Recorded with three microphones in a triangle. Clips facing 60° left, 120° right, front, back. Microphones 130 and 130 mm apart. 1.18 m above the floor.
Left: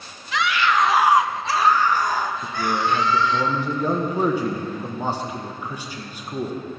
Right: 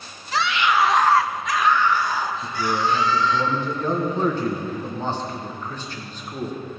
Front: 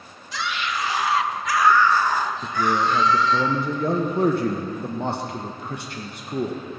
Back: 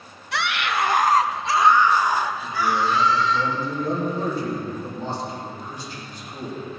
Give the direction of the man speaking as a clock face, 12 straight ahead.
1 o'clock.